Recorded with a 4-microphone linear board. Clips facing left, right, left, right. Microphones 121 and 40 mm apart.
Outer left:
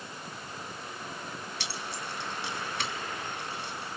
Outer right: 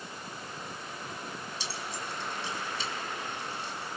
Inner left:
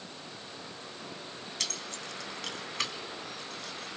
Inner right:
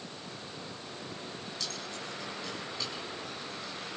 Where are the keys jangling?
70° left (ahead or behind), 1.7 m.